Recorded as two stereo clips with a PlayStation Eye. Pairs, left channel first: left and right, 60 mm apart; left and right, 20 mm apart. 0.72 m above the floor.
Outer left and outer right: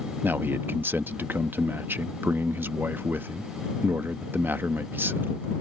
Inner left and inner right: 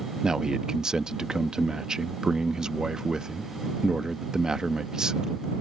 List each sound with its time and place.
0.2 s a man speaking: 35° right (ahead or behind)